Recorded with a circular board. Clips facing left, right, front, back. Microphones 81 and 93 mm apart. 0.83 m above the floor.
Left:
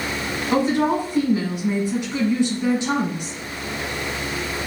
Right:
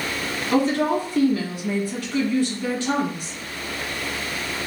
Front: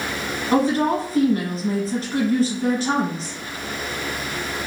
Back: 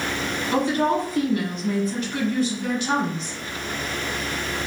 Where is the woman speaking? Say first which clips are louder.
Left 1 dB, front 3 dB; 30° left, 0.9 m.